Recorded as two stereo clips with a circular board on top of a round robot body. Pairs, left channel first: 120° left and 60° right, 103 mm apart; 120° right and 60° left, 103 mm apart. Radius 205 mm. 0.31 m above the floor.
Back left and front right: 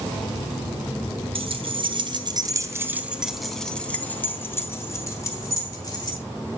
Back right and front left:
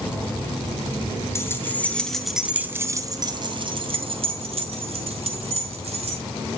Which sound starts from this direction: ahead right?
Keys jangling, at 1.4 s.